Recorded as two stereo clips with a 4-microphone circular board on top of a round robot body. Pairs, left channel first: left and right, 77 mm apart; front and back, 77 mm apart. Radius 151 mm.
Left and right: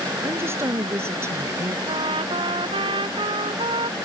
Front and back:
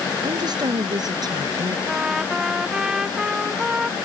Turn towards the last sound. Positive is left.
turn(degrees=-100)